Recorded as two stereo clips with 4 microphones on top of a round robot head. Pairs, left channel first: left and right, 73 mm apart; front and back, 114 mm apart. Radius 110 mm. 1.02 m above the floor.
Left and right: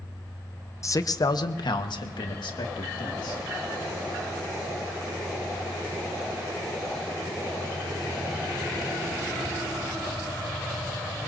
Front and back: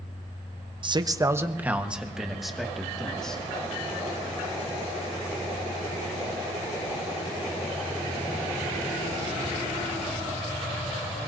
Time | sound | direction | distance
0.8 | a man speaking | 135° left | 0.9 m